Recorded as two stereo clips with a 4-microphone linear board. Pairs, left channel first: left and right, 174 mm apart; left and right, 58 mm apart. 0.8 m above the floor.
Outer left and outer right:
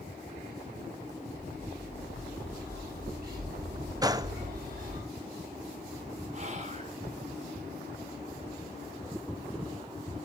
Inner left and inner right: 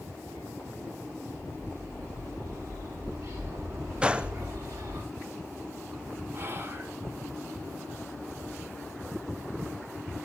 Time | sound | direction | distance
1.4 | a bird | 65° right (ahead or behind) | 6 m
4.0 | a gunshot | 20° right (ahead or behind) | 0.5 m
6.3 | whispering | 45° right (ahead or behind) | 2.5 m